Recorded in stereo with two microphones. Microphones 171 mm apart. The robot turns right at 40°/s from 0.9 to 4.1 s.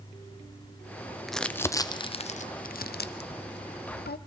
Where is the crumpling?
Centre (ahead or behind), 0.5 m; by 4.2 s 65° left (ahead or behind), 0.5 m.